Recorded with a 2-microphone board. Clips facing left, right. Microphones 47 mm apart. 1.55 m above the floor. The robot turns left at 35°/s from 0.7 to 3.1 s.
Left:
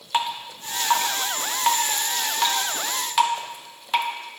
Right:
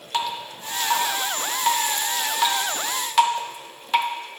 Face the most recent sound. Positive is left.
turn(degrees=-5)  # may be behind; listen again after turning